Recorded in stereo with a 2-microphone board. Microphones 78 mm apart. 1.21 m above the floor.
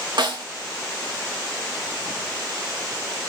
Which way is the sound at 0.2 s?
75° right (ahead or behind).